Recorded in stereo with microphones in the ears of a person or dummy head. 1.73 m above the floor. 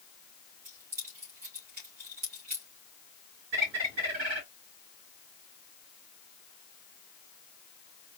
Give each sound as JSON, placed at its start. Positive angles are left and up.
{"t": 0.7, "sound": "keys jangling", "side_deg": -50, "distance_m": 2.5}
{"t": 3.5, "sound": "a bird", "side_deg": -45, "distance_m": 1.8}